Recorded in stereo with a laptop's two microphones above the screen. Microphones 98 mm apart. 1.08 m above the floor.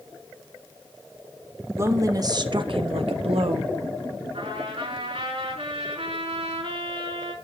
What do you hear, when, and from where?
1.8 s a woman speaking: 30° right (ahead or behind), 1.7 m; by 3.7 s 65° right (ahead or behind), 1.4 m
4.3 s a trumpet: 75° right (ahead or behind), 6.5 m